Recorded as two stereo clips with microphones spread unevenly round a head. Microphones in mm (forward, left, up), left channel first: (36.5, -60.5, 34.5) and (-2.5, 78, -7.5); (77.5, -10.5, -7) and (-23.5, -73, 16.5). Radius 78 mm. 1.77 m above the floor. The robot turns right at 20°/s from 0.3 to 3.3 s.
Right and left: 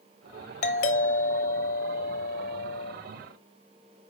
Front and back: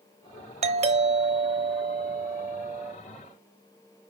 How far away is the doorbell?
About 1.0 m.